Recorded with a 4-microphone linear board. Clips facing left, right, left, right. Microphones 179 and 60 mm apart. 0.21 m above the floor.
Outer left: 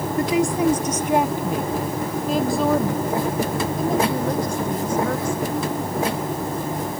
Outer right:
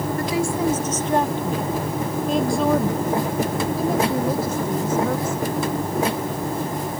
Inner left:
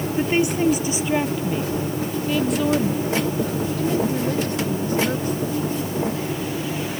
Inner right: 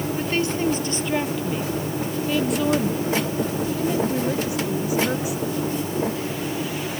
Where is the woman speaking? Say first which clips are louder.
Outer left 5 dB, inner left 6 dB; 20° left (ahead or behind); by 5.6 s 10° right (ahead or behind).